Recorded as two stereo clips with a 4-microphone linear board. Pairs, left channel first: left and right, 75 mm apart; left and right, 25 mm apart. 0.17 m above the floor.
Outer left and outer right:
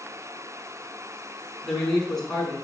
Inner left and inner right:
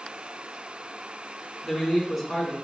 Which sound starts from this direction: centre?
A man speaking, at 1.6 s.